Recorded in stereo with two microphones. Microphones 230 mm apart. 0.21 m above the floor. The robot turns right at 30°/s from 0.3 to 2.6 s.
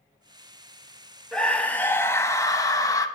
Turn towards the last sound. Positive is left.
turn(degrees=15)  # may be behind; listen again after turning